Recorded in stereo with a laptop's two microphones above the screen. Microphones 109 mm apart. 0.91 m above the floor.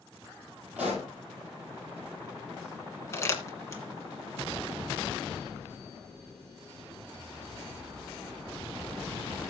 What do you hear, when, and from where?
0.8 s a pop: 15° right (ahead or behind), 8.5 m
3.1 s crumpling: 25° left (ahead or behind), 1.6 m